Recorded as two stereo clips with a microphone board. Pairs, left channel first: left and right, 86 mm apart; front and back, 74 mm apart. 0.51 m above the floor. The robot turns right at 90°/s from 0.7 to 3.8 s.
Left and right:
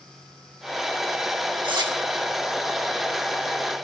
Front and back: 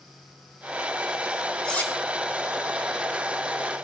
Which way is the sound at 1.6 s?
80° right.